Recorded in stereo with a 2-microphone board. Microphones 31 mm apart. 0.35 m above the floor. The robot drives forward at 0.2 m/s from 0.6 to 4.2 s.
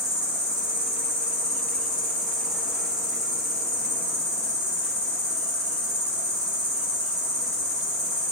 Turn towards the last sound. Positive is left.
turn(degrees=15)  # may be behind; listen again after turning